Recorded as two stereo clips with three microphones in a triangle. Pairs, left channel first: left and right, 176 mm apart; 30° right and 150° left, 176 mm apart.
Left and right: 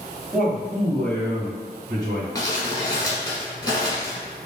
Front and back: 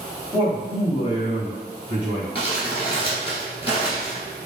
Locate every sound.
0.3 s a man speaking: 5° right, 1.4 m; by 2.2 s 25° left, 2.5 m
2.4 s crumpling: 25° left, 1.6 m